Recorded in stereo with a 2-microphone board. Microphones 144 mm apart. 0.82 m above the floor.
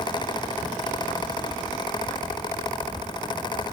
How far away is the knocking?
No knocking in this recording.